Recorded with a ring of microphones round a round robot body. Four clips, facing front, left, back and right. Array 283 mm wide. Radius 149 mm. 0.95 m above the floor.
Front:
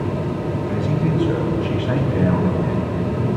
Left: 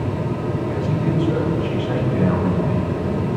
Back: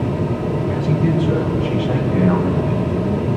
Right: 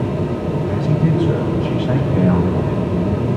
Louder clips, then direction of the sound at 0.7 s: Right 4 dB, back 2 dB; 70° right.